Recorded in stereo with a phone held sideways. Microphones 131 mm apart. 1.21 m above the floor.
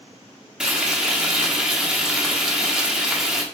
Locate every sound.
0.6 s frying: 5° right (ahead or behind), 1.3 m